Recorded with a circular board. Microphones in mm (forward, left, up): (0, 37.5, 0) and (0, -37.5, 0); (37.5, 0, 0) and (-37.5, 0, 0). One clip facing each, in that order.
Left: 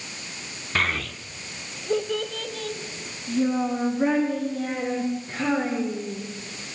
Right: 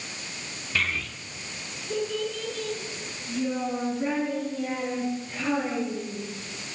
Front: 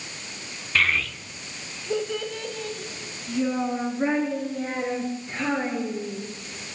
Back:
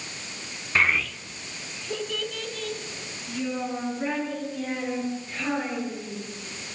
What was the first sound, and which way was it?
A child speaking, 120° left.